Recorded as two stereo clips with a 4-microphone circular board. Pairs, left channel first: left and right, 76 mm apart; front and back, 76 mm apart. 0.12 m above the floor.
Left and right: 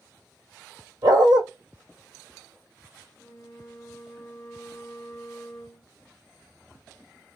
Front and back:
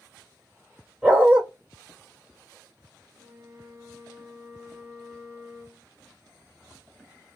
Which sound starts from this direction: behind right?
A dog barking, at 1.0 s.